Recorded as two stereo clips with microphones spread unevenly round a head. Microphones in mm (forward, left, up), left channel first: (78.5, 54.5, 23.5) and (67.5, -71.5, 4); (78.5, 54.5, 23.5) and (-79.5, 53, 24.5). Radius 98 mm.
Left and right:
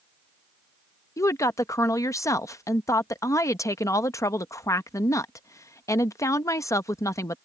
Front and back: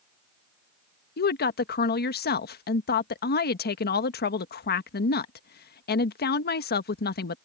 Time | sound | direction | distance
1.2 | a woman speaking | 15° left | ?